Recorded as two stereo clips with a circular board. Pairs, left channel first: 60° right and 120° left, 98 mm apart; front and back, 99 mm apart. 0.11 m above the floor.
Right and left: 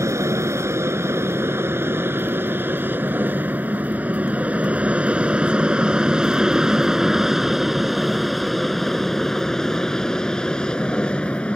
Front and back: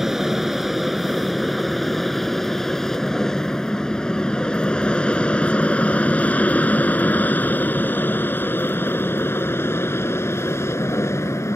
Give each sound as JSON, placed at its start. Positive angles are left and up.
{"t": 0.0, "sound": "an aircraft", "azimuth_deg": 95}